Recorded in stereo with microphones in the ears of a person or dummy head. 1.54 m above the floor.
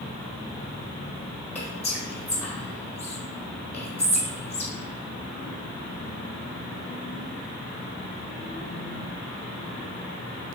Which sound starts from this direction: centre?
Whispering, at 1.6 s.